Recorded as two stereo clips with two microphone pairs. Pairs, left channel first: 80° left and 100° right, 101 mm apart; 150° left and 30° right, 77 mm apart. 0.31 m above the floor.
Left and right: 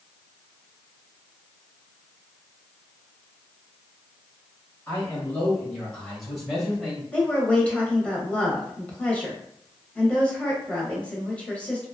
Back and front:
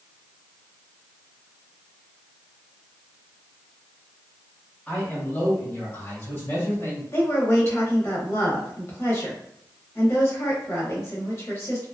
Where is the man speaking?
125° left, 1.7 m; by 7.0 s straight behind, 2 m.